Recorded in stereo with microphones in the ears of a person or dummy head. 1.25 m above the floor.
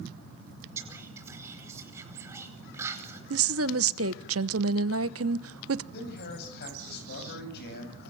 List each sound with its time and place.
0.8 s whispering: 10° right (ahead or behind), 5 m
3.3 s a woman speaking: 70° right (ahead or behind), 1.0 m
5.9 s a man speaking: 65° left (ahead or behind), 8.5 m